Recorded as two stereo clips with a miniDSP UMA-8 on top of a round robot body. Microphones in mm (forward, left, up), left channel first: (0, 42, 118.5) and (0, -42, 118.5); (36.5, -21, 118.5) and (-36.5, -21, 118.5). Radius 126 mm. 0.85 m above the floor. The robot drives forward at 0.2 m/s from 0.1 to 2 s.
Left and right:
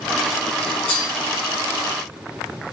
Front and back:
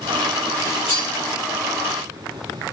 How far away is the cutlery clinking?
About 1.8 m.